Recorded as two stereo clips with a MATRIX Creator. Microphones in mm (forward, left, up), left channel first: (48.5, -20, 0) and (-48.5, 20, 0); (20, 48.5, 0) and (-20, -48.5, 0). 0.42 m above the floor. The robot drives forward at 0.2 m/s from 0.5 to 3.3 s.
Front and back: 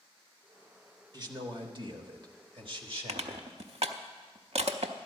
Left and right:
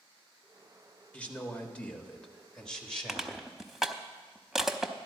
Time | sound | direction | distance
1.1 | a man speaking | 135° left | 1.2 m
3.1 | crushing | 160° left | 0.7 m